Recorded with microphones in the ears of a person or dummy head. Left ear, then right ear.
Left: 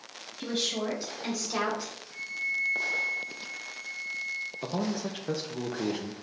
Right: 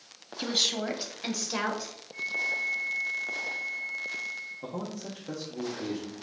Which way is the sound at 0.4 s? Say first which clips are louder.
Right 4 dB; 45° right (ahead or behind).